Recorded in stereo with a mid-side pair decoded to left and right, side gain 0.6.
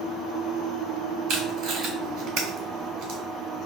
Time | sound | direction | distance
1.3 | tape being pulled | 65° right | 3 m